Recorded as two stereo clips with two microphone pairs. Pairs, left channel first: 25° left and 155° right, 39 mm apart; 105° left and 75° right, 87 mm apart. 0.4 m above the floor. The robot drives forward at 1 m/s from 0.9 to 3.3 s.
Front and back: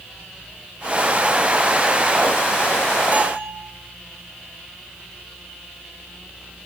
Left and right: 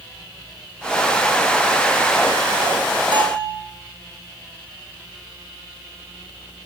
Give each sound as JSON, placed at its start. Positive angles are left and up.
{"t": 3.1, "sound": "a bell", "azimuth_deg": -100, "distance_m": 4.5}